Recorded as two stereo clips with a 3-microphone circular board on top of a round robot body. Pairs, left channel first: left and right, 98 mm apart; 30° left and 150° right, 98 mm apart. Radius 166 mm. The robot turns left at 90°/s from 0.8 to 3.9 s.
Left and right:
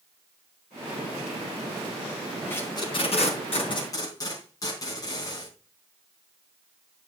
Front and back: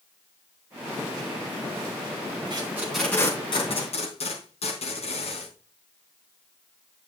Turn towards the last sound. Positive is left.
turn(degrees=35)